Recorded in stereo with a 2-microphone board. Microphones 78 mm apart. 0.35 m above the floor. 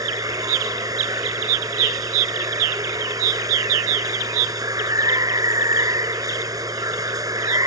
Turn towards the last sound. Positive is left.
turn(degrees=-50)  # may be behind; listen again after turning